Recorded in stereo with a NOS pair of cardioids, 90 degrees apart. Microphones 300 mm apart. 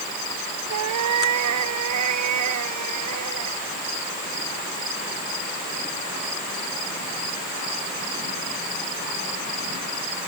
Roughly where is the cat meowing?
Right.